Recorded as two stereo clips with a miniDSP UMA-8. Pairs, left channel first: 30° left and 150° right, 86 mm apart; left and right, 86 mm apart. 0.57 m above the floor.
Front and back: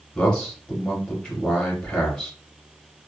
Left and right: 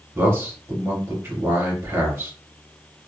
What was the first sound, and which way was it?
A man speaking, 45° right.